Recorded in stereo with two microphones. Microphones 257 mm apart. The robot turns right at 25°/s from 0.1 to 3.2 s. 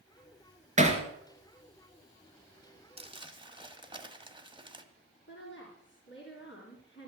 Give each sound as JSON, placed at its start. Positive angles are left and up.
{"t": 0.8, "sound": "hammering", "side_deg": -30, "distance_m": 1.9}
{"t": 3.0, "sound": "crumpling", "side_deg": -25, "distance_m": 1.3}
{"t": 5.3, "sound": "a woman speaking", "side_deg": 50, "distance_m": 3.5}